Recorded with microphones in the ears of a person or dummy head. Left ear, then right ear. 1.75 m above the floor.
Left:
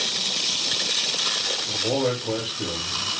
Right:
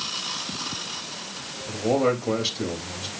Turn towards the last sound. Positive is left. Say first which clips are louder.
# even
turn(degrees=-75)  # may be behind; listen again after turning